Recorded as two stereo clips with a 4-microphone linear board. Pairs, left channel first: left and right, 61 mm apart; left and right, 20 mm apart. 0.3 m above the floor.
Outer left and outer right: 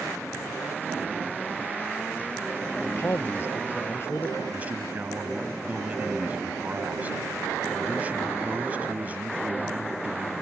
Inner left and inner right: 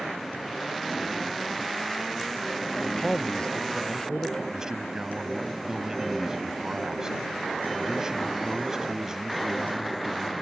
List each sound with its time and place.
2.8 s a man speaking: 45° left (ahead or behind)
4.5 s a man speaking: 25° right (ahead or behind)